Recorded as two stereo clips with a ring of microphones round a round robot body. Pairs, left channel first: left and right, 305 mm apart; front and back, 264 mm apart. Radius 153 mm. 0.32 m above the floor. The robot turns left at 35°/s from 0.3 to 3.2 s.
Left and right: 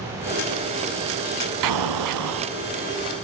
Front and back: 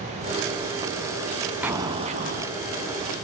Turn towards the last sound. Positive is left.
turn(degrees=-150)